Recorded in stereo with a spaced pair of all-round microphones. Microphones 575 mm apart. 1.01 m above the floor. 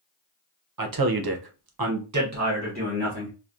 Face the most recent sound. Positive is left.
turn(degrees=-15)  # may be behind; listen again after turning